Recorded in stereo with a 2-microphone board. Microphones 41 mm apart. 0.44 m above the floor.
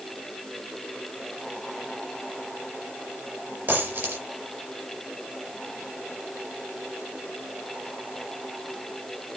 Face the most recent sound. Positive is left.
turn(degrees=-45)  # may be behind; listen again after turning